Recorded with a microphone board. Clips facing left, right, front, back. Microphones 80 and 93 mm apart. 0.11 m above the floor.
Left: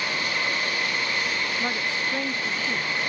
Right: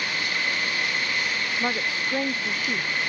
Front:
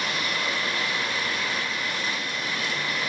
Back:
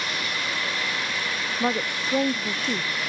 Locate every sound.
1.6 s a woman speaking: 165° right